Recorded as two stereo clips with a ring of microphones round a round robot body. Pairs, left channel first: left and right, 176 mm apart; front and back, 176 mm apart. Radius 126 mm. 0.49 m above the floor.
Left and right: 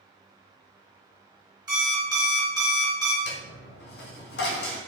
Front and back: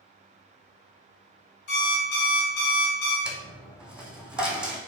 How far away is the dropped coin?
About 0.8 m.